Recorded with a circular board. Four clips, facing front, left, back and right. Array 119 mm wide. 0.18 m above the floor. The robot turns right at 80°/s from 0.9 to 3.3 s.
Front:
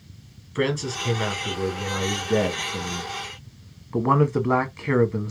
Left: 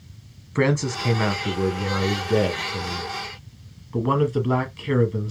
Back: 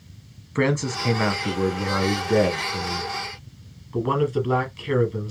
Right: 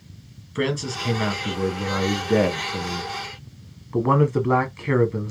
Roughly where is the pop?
I don't hear a pop.